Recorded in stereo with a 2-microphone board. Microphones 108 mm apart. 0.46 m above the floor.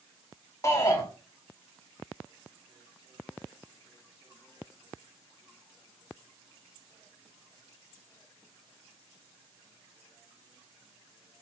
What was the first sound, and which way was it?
A shout, 30° left (ahead or behind).